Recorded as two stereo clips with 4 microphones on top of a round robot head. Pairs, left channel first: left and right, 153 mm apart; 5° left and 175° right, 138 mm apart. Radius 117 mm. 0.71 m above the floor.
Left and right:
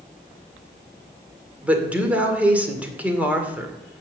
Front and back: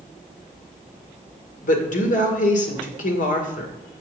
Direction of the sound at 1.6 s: 10° right.